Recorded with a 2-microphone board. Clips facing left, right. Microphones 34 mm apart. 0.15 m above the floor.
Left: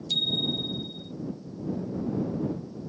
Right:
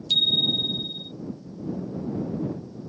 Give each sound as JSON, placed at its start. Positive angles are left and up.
{"t": 0.1, "sound": "a bicycle bell", "side_deg": -35}